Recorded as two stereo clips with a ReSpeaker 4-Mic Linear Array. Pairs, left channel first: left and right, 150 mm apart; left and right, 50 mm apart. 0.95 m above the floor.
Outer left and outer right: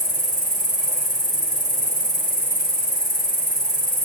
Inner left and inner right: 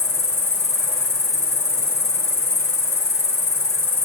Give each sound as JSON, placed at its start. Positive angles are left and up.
{"t": 0.0, "sound": "an insect", "side_deg": 75, "distance_m": 4.5}